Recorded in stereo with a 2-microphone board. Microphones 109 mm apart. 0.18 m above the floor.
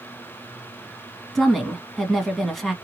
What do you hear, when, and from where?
1.4 s a woman speaking: centre (ahead or behind), 1.5 m